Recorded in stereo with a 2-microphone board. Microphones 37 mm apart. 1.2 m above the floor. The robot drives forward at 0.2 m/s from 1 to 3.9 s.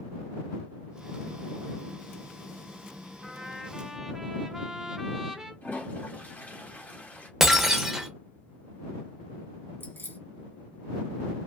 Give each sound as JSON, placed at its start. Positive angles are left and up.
{"t": 3.2, "sound": "a trumpet", "side_deg": -10, "distance_m": 0.7}
{"t": 5.6, "sound": "a toilet flushing", "side_deg": 55, "distance_m": 1.2}
{"t": 7.4, "sound": "breaking glass", "side_deg": -10, "distance_m": 0.5}
{"t": 9.8, "sound": "keys jangling", "side_deg": 65, "distance_m": 0.8}